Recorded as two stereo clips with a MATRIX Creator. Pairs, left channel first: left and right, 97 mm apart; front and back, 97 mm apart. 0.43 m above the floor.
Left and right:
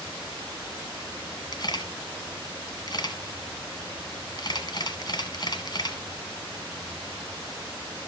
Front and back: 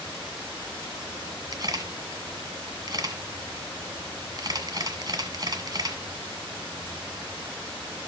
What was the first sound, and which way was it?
A camera shutter, 130° left.